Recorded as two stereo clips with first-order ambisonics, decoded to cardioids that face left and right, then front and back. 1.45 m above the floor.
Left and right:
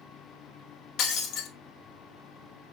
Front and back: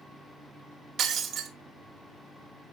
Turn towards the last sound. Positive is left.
turn(degrees=125)